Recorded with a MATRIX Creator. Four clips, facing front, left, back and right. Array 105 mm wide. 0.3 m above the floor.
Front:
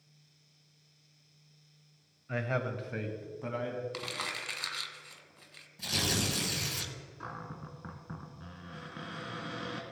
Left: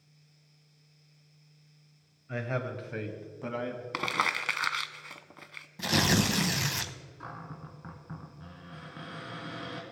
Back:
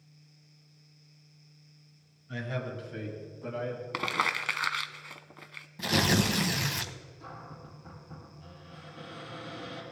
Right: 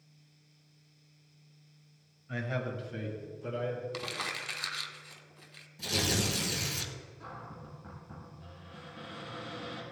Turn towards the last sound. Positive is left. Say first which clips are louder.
# left 4 dB, front 3 dB
turn(degrees=35)